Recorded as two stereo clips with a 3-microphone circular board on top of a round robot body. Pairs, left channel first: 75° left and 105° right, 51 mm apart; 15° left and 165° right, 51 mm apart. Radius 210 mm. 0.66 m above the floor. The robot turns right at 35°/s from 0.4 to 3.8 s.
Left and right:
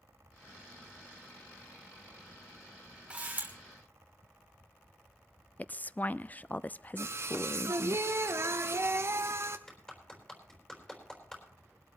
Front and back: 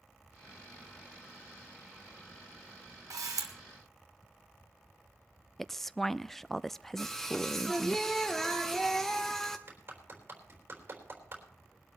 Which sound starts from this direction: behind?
A camera shutter, at 3.1 s.